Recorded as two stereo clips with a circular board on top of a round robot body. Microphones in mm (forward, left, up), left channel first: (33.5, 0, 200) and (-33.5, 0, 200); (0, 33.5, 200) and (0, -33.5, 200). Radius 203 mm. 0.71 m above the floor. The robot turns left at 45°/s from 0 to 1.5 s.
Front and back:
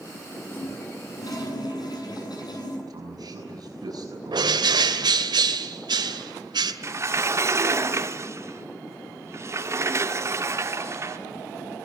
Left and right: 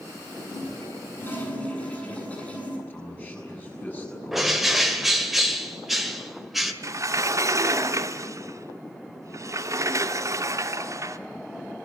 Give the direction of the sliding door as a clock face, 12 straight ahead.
4 o'clock.